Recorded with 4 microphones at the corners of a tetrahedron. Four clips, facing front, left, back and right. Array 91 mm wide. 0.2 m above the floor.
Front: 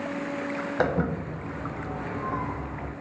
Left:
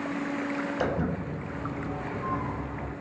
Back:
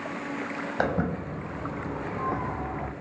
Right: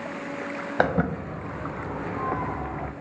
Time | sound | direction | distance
0.8 | footsteps | 90° right | 1.5 m